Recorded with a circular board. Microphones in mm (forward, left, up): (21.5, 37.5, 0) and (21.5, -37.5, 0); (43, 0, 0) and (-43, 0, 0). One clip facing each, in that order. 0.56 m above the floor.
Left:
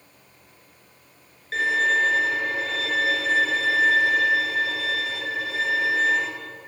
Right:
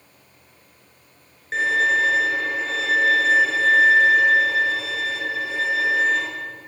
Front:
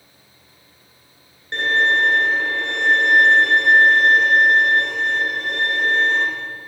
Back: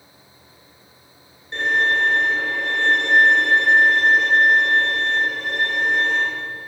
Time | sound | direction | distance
1.5 | a violin | 25° right | 2.5 m